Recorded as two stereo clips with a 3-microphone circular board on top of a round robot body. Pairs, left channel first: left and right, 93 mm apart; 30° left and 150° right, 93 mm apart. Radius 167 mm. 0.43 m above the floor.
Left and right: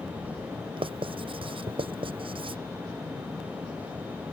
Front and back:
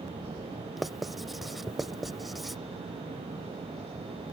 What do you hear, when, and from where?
0.8 s writing: 60° right